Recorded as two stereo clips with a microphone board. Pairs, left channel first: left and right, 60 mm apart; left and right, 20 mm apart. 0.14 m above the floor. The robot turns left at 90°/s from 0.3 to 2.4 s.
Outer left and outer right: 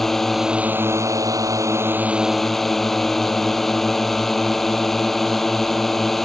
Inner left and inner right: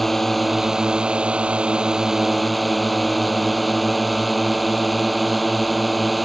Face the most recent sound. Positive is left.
turn(degrees=175)